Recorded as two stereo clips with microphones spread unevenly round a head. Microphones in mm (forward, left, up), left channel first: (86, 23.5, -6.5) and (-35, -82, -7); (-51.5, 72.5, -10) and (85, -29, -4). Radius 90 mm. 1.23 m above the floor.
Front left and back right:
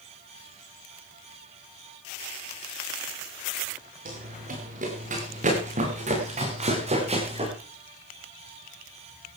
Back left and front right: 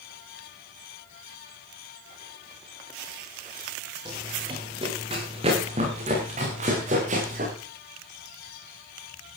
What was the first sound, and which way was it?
Running footsteps, 105° right.